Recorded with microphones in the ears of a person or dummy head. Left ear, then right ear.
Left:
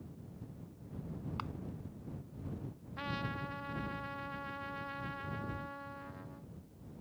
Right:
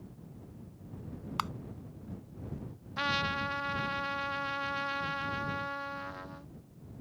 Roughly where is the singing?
No singing in this recording.